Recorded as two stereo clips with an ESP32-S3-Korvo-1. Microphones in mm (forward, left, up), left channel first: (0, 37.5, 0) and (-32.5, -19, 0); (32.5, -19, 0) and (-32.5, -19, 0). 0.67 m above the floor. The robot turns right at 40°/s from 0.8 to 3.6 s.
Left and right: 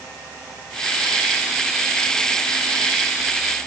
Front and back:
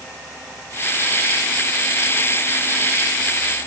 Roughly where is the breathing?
I don't hear breathing.